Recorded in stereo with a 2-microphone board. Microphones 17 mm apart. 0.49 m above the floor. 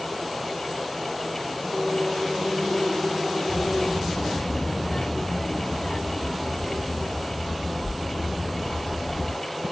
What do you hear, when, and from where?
3.5 s a child speaking: 60° left (ahead or behind), 3.5 m